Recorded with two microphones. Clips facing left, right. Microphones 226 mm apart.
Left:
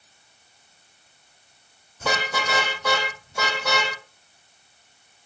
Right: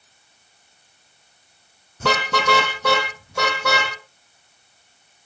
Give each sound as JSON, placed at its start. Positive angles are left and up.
{"t": 2.0, "sound": "a car horn", "side_deg": -80, "distance_m": 5.5}